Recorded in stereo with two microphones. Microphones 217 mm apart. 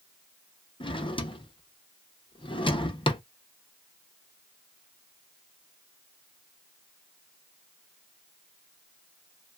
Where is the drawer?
20° left (ahead or behind), 0.6 m.